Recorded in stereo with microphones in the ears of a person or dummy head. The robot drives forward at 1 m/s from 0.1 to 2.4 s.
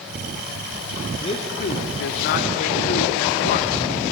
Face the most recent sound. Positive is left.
turn(degrees=45)  # may be behind; listen again after turning